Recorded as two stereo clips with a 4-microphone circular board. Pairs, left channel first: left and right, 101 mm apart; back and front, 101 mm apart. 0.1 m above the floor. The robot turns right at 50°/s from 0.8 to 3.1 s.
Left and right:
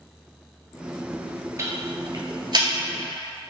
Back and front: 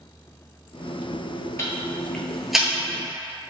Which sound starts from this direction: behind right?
Ticking, at 1.6 s.